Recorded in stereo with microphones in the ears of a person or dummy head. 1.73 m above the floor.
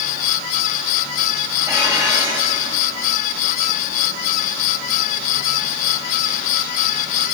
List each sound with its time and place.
1.7 s dishes clattering: 10° right (ahead or behind), 6 m